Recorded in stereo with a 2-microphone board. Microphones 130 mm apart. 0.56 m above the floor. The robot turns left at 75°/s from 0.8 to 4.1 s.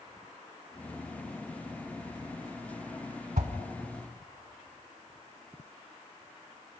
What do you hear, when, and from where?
3.4 s a whoosh: 80° right, 1.4 m